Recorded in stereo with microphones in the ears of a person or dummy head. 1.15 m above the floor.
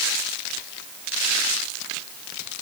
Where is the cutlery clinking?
No cutlery clinking in this recording.